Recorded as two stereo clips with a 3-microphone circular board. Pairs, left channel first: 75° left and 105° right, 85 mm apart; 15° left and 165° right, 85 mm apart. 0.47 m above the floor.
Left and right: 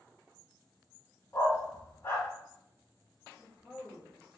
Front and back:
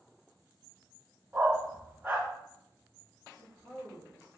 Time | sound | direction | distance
1.3 | a dog barking | 125° left | 1.2 m
3.3 | a woman speaking | 15° left | 1.4 m